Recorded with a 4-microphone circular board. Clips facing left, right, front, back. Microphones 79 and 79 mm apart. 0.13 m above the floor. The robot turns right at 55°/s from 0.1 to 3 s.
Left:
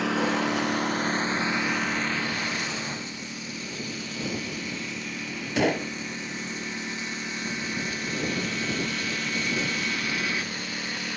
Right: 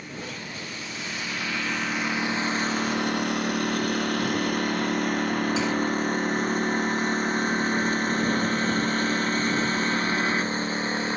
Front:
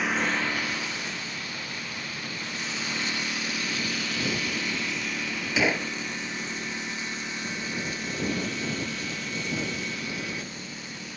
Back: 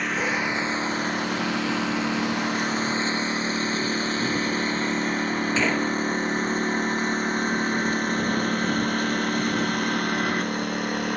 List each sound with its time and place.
0.0 s a lawn mower: 90° left; by 11.2 s 145° right
5.6 s a gunshot: 80° left